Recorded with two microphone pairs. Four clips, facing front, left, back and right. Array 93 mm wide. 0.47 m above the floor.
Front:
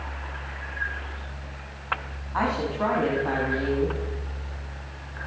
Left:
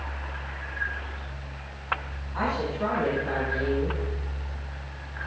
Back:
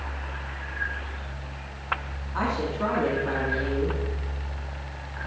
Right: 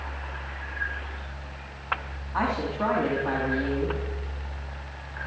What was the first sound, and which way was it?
A woman speaking, 45° right.